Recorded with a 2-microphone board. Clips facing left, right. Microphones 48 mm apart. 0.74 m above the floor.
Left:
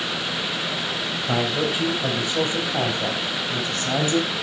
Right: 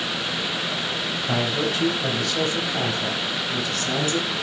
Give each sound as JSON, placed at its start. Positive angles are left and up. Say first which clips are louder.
{"t": 1.3, "sound": "a man speaking", "louder": "left 1 dB", "side_deg": 10, "distance_m": 4.0}